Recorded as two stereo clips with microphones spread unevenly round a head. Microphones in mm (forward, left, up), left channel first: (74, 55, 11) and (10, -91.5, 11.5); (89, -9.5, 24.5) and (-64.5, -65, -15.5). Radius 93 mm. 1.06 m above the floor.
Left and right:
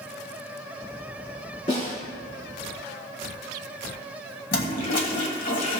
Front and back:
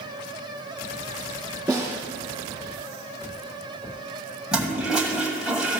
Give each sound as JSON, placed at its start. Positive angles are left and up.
{"t": 1.7, "sound": "a snare drum", "azimuth_deg": 120, "distance_m": 4.0}
{"t": 4.5, "sound": "a toilet flushing", "azimuth_deg": 105, "distance_m": 1.4}